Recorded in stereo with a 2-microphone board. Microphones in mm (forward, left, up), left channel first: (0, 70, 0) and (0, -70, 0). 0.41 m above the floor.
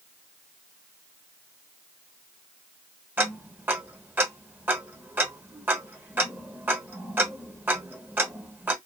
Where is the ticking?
15° right (ahead or behind), 0.9 m.